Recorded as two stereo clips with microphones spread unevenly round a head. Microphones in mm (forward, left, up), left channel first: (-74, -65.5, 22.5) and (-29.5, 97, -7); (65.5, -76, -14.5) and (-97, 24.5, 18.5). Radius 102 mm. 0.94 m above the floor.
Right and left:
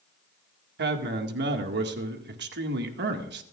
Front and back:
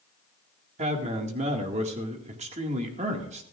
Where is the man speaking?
85° left, 1.9 m.